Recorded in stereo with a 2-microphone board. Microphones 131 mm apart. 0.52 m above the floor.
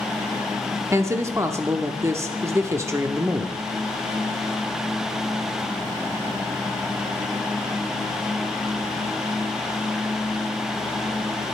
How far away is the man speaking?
About 0.8 m.